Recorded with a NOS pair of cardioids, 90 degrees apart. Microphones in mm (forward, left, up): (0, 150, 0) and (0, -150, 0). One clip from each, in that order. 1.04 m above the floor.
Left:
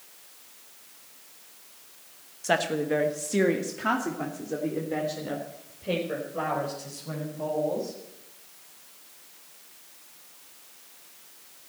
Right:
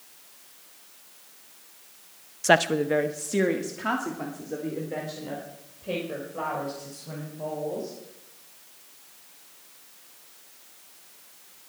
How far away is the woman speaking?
About 0.8 m.